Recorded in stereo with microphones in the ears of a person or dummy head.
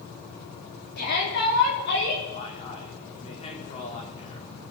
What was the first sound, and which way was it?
A shout, 60° left (ahead or behind).